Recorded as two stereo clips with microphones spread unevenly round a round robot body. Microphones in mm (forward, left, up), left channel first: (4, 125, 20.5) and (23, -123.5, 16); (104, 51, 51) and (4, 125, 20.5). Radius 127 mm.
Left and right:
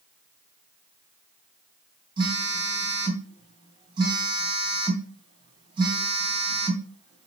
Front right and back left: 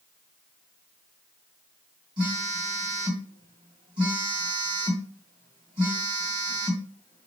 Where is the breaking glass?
I don't hear breaking glass.